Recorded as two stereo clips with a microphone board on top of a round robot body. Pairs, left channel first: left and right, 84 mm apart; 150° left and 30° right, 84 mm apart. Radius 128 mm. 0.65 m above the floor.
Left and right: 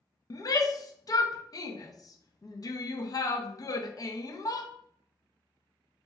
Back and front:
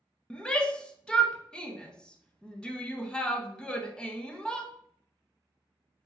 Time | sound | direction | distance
0.3 | a shout | 75° left | 0.8 m